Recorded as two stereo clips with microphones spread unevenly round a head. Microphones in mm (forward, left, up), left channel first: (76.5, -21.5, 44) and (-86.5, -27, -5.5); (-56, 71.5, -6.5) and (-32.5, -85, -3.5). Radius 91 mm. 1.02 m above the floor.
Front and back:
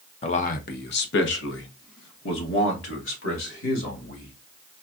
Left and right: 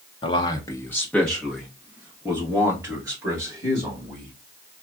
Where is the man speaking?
60° left, 0.7 m; by 4.3 s 10° right, 2.5 m.